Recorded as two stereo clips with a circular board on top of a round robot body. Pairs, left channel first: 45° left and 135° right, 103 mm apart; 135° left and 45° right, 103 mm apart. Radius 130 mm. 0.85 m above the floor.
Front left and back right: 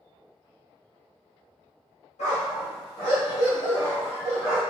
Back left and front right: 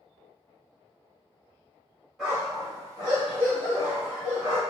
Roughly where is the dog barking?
Ahead left.